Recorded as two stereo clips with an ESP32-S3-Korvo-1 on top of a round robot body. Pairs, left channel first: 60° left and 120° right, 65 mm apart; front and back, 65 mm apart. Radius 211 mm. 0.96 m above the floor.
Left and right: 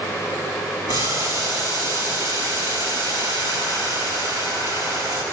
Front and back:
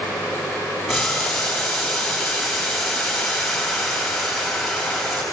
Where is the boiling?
90° right, 7.5 m.